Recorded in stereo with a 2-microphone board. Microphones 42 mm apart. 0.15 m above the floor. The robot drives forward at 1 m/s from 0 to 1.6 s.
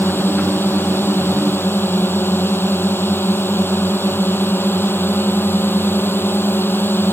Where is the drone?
60° left (ahead or behind); by 7.1 s 65° left (ahead or behind).